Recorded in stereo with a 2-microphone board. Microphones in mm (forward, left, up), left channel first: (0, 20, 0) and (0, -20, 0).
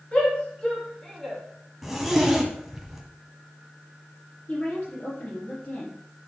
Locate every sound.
0.1 s a shout: 25° left (ahead or behind), 3.5 m; by 1.4 s centre (ahead or behind), 2.5 m
1.8 s a zipper: 5° right (ahead or behind), 1.4 m
4.5 s a woman speaking: 40° left (ahead or behind), 4.5 m